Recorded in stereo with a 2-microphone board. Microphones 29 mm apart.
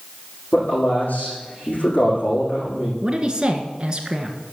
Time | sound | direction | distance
0.5 | a man speaking | 65° left (ahead or behind) | 6.5 m
3.0 | a man speaking | 30° right (ahead or behind) | 1.3 m